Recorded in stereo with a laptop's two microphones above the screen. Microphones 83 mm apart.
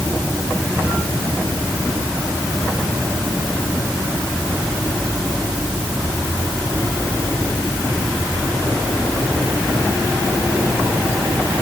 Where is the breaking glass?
No breaking glass in this recording.